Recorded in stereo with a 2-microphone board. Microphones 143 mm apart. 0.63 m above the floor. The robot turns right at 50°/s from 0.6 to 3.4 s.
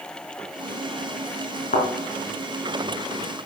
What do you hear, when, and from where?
1.7 s a thud: 80° left, 2.5 m; by 1.9 s 90° left, 2.5 m